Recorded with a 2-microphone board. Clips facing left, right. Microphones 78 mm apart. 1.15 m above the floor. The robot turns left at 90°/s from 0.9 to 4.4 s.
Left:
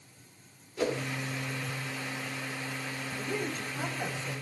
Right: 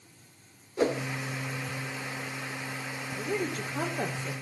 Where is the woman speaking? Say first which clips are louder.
Right 4 dB; 30° right, 3.5 m; by 4.3 s 135° right, 3.5 m.